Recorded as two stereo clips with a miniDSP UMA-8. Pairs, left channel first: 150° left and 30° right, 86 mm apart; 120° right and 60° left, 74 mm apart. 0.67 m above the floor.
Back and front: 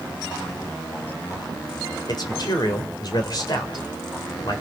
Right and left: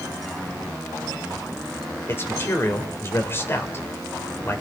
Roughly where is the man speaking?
Behind.